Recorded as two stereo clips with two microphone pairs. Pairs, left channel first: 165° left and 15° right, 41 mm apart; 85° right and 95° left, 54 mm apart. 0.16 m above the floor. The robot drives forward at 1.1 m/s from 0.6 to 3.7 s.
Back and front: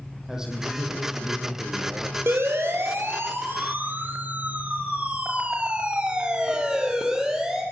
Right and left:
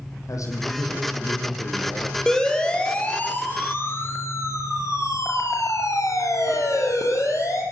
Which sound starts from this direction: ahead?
A siren, at 2.3 s.